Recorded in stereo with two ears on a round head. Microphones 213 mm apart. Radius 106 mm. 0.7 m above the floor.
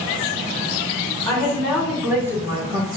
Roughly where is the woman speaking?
Centre.